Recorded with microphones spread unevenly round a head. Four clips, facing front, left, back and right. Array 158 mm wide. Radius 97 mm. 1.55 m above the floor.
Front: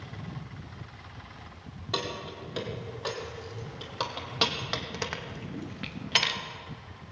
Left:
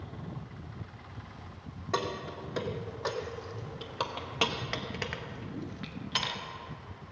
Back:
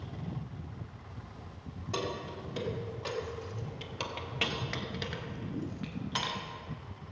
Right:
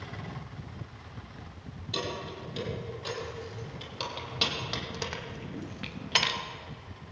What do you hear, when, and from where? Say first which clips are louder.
1.9 s keys jangling: left 3 dB, front 2 dB; 65° left, 2.5 m; by 6.4 s 50° right, 1.2 m